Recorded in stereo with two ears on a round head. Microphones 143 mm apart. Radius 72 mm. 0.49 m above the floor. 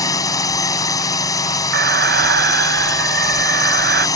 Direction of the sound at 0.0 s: 20° left (ahead or behind).